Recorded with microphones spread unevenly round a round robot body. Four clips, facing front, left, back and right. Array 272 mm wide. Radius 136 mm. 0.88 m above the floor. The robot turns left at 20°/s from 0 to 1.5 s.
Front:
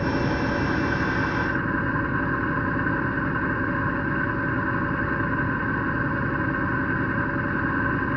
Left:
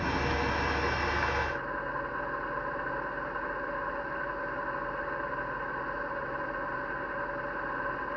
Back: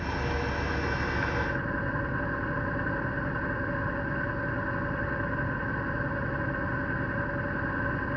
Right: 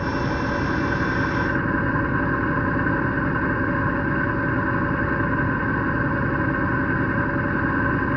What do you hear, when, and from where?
0.0 s an engine running: 20° right; by 8.2 s 50° right